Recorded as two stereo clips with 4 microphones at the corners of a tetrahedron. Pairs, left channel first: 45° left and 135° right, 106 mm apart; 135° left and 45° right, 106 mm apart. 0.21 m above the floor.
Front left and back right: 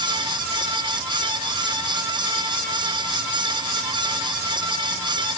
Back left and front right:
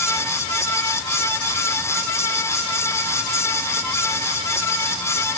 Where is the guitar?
I don't hear a guitar.